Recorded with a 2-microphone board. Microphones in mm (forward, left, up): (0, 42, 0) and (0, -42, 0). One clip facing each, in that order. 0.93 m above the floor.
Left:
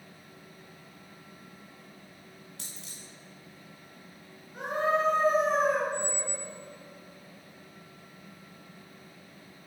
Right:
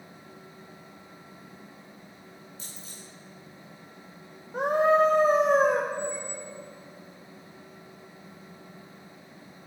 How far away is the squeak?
About 2.5 m.